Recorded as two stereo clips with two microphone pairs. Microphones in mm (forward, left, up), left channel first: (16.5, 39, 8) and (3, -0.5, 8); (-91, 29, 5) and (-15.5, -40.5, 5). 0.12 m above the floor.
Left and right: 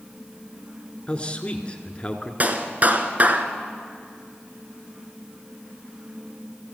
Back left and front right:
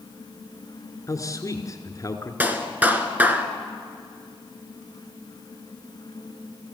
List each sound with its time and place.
1.1 s a man speaking: 115° left, 1.9 m
2.4 s a clap: 105° right, 1.5 m